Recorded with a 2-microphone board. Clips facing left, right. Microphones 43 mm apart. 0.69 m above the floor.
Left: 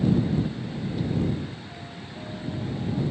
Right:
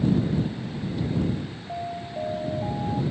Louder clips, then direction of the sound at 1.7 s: Right 8 dB; 90° right.